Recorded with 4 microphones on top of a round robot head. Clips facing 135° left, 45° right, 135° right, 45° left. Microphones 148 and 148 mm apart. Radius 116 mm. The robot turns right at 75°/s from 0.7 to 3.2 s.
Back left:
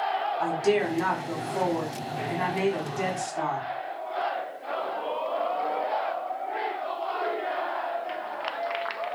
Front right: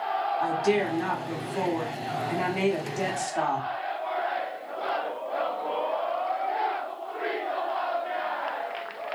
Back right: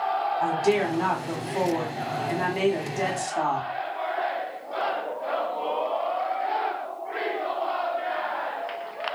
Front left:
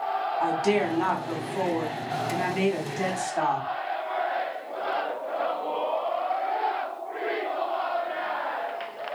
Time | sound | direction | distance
0.4 | a woman speaking | 115° left | 1.1 m